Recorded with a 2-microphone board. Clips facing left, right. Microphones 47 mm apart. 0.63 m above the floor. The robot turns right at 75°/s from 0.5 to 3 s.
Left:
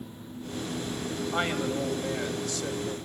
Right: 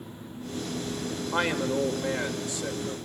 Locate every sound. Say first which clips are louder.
1.3 s a man speaking: right 3 dB; 110° right, 2.5 m; by 3.0 s 15° left, 2.5 m